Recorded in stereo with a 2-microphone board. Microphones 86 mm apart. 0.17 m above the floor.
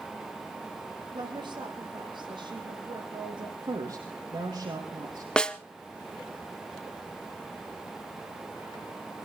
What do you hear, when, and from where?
1.1 s a woman speaking: 60° right (ahead or behind), 5.5 m
3.6 s a woman speaking: 65° right (ahead or behind), 4 m
5.4 s a snare drum: 10° left (ahead or behind), 0.8 m